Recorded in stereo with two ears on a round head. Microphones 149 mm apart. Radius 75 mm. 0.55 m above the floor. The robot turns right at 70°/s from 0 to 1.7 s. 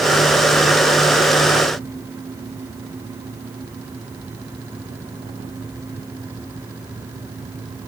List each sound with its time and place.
Only background noise.